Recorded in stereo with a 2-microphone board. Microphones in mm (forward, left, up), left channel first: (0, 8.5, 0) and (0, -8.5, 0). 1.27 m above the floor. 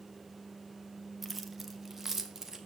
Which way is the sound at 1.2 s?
5° right (ahead or behind).